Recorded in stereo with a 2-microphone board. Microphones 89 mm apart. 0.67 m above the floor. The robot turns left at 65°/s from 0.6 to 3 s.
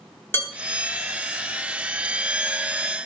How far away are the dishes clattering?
About 1.0 m.